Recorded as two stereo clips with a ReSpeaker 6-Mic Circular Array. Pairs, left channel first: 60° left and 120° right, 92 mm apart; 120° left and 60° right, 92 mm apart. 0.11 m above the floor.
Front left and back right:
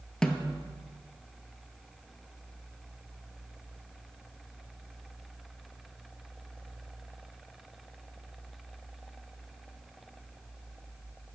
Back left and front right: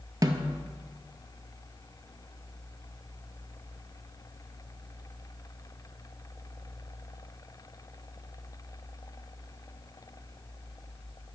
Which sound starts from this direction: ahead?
A snare drum, at 0.2 s.